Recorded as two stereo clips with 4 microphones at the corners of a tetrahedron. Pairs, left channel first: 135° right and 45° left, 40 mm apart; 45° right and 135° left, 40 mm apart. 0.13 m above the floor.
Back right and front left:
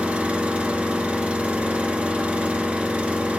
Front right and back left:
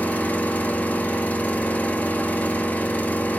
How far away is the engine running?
About 0.9 m.